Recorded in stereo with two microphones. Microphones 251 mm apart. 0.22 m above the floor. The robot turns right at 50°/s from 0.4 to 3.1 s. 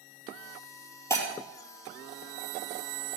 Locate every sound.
1.1 s breaking glass: 10° left (ahead or behind), 2.5 m; by 1.3 s 20° left (ahead or behind), 2.5 m